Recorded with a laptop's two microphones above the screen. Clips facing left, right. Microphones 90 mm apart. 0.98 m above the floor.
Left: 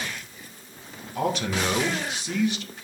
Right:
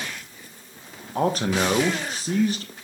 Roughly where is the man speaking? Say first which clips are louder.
Right 4 dB; right.